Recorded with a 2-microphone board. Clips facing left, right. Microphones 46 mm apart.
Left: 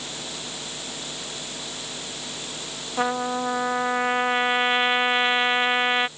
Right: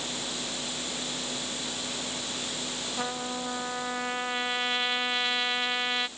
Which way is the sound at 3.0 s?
35° left (ahead or behind).